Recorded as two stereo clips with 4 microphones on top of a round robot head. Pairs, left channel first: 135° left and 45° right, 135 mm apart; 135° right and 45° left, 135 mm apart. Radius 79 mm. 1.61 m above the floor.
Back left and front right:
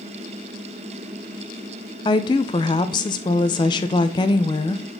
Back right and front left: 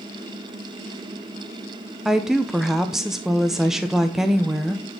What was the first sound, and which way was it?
A woman speaking, 130° left.